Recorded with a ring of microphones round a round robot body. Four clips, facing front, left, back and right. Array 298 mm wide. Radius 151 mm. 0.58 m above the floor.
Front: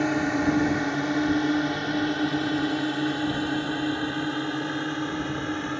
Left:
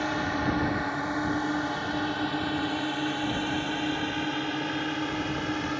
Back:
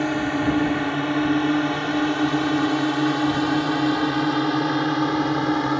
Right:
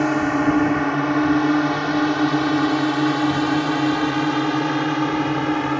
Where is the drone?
95° right; by 5.8 s 135° right.